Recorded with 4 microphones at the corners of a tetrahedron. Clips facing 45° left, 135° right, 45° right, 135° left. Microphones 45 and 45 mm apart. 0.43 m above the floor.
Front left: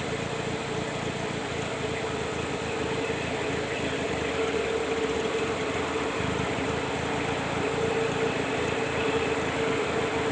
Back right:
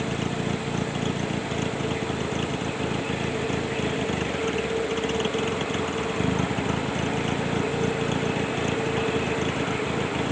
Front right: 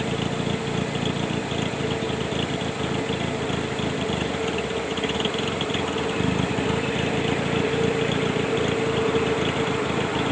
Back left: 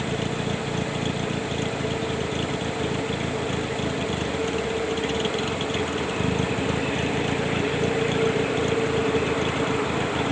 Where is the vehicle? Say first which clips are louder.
Back right 3 dB, front right 1 dB; 105° right.